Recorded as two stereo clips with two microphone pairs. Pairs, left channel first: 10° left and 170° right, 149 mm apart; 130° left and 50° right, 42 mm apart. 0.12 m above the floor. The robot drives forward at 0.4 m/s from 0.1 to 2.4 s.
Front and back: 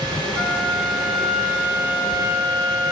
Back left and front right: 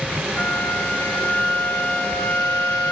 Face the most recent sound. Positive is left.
turn(degrees=125)